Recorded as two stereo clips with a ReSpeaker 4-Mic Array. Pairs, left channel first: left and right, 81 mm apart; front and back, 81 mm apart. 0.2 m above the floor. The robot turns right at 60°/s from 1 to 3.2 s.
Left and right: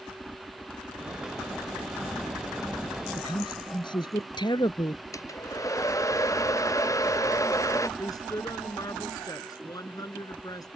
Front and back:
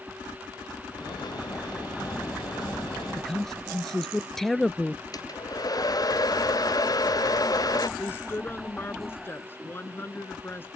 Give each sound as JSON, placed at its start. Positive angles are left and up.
{"t": 3.2, "sound": "a man speaking", "azimuth_deg": 80}
{"t": 5.1, "sound": "a hair dryer", "azimuth_deg": 40}
{"t": 8.0, "sound": "a woman speaking", "azimuth_deg": 60}